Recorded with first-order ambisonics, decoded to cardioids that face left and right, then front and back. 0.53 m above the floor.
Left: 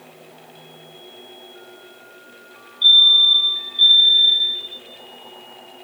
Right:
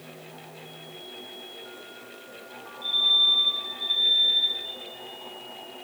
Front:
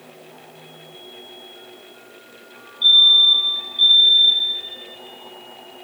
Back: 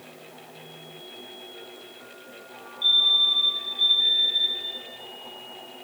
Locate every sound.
2.8 s a fire alarm: 65° left, 7 m